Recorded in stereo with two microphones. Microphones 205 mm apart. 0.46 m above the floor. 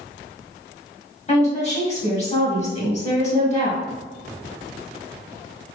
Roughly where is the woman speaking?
Left.